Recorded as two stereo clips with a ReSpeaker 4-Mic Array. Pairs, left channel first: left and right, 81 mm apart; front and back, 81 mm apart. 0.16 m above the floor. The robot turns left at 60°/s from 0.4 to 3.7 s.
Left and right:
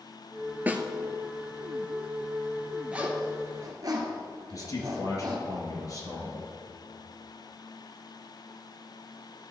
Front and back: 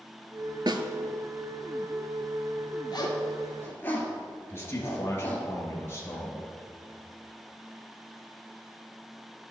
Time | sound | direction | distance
0.7 | a snare drum | 155° right | 0.7 m
2.9 | a zipper | 15° right | 1.6 m
4.5 | a man speaking | 60° left | 2 m